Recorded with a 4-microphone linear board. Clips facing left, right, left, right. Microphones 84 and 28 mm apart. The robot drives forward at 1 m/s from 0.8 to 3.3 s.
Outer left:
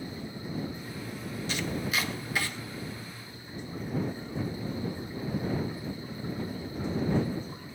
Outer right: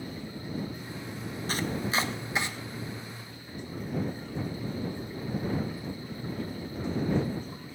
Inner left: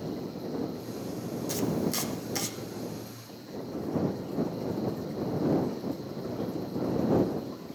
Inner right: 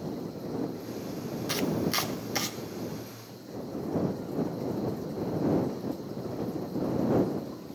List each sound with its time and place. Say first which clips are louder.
1.5 s chopping: outer right 2 dB, inner right 1 dB; 40° right (ahead or behind), 0.7 m; by 2.5 s 20° right (ahead or behind), 1.4 m